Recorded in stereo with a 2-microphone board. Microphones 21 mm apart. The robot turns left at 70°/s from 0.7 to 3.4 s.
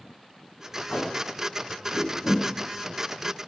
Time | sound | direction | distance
0.9 | tape being pulled | 55° left (ahead or behind) | 6 m